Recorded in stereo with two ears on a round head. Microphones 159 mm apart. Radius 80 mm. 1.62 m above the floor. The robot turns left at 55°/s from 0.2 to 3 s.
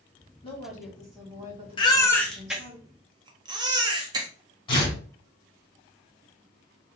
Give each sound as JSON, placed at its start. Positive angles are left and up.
{"t": 0.4, "sound": "a woman speaking", "azimuth_deg": 35, "distance_m": 1.4}
{"t": 1.8, "sound": "a baby crying", "side_deg": 25, "distance_m": 0.6}
{"t": 4.7, "sound": "tearing paper", "side_deg": 25, "distance_m": 1.7}